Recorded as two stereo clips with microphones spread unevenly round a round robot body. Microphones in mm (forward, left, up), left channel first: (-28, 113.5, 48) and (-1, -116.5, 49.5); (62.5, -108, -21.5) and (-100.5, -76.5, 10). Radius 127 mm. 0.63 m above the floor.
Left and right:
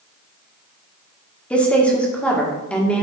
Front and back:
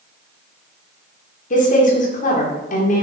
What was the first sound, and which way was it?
A woman speaking, 15° left.